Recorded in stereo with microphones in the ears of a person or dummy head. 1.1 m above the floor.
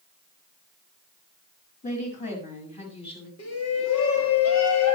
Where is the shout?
85° left, 1.9 m.